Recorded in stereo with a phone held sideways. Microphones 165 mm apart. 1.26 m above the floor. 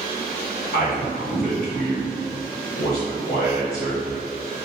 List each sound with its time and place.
0.7 s a man speaking: 60° left (ahead or behind), 1.8 m